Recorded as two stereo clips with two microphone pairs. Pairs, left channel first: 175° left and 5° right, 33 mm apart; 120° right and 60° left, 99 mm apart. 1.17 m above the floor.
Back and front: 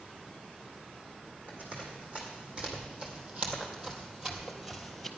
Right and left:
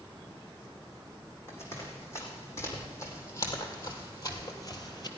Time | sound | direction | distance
1.5 | running footsteps | 60° right | 3.5 m